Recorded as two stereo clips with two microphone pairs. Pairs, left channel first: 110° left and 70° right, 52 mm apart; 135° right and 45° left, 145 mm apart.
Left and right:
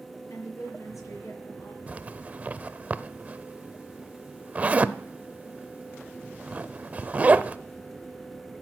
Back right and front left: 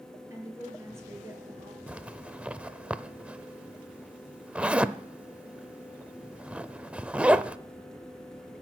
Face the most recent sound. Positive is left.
turn(degrees=-30)